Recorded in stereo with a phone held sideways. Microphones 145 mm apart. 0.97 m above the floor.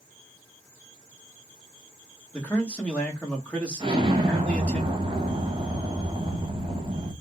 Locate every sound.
2.3 s a man speaking: 10° left (ahead or behind), 1.2 m
3.8 s an explosion: 35° right (ahead or behind), 1.2 m